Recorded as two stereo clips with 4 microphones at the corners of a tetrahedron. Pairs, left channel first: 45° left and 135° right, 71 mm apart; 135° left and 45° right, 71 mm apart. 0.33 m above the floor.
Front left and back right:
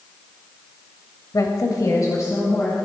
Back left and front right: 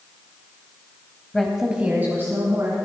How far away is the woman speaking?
About 1.3 m.